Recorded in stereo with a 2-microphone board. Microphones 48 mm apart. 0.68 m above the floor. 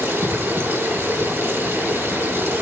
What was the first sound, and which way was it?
Running water, 60° right (ahead or behind).